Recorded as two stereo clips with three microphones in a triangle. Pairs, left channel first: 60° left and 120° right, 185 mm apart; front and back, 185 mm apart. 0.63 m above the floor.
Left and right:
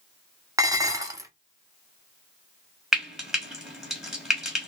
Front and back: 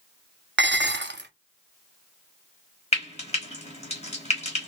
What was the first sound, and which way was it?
Dishes clattering, 170° left.